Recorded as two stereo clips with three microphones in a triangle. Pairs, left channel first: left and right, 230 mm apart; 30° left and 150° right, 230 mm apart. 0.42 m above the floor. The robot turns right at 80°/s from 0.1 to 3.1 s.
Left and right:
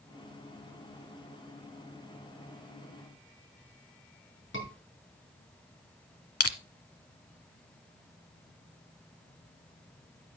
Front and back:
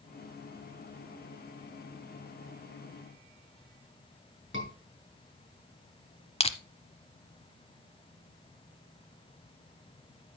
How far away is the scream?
About 6 m.